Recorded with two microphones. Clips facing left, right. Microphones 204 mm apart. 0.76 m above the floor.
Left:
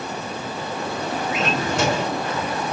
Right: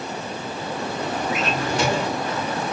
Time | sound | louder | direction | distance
1.3 | a drawer | left 1 dB | 70° left (ahead or behind) | 1.9 m